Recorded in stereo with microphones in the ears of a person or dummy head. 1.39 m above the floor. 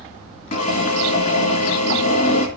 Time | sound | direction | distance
0.5 | a drill | 50° left (ahead or behind) | 3 m